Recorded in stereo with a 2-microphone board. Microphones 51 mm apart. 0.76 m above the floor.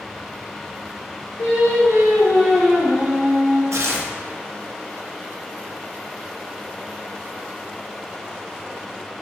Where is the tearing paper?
65° right (ahead or behind), 0.5 m.